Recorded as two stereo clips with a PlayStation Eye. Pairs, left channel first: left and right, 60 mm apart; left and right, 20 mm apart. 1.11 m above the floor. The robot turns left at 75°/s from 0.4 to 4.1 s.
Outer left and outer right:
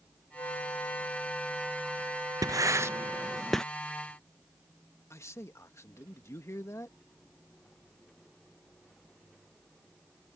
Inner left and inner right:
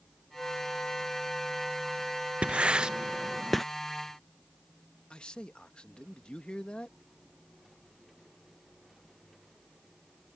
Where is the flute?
90° left; by 3.4 s 140° right.